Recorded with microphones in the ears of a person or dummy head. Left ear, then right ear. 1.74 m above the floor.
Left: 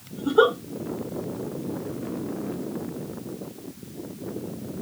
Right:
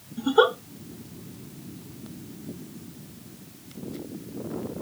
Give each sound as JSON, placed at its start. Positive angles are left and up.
{"t": 0.2, "sound": "a giggle", "side_deg": -15, "distance_m": 0.7}